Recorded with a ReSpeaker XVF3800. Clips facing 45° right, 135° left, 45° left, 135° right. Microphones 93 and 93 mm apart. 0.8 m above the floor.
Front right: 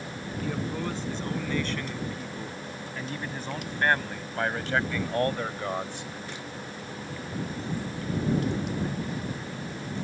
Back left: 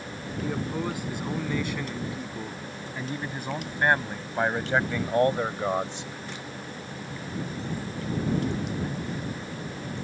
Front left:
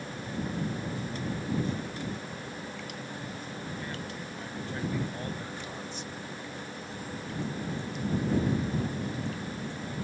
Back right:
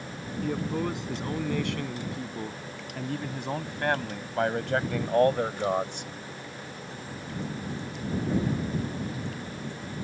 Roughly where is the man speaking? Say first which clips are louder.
Back left 2 dB, back right 7 dB; behind right.